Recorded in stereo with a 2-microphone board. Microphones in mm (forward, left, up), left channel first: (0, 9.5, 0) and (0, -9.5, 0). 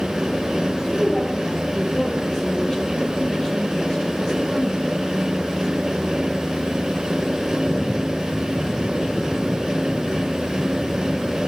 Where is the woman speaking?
45° left (ahead or behind), 6 m.